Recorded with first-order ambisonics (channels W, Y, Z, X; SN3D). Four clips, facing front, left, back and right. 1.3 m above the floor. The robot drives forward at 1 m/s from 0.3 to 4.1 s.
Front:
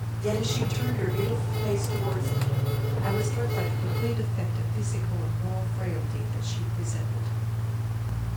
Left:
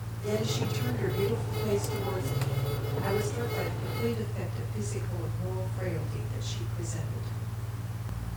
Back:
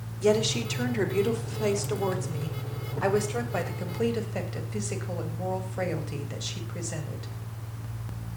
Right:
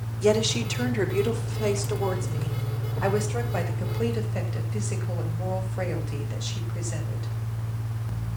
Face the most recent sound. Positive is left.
turn(degrees=-145)